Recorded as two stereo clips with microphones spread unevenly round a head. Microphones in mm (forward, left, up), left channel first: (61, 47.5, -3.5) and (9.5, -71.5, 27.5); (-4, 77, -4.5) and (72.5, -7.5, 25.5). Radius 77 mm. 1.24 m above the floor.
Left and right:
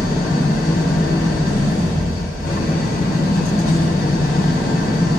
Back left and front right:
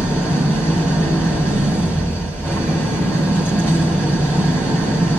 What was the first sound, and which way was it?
An engine running, 50° left.